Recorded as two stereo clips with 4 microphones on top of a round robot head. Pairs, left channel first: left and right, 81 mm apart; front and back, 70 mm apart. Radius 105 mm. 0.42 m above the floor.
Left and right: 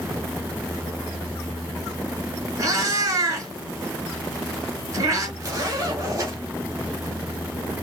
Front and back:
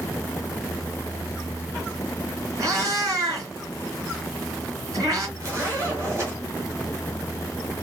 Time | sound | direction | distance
2.6 | a cat meowing | 135° right | 3.5 m
5.4 | a zipper | 135° right | 3.5 m